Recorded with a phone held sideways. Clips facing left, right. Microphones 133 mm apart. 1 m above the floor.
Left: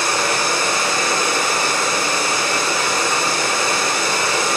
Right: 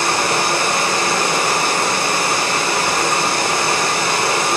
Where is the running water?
70° right (ahead or behind), 2.5 m.